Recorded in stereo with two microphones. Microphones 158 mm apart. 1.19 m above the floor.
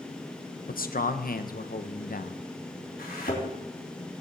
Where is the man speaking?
65° left (ahead or behind), 0.8 m.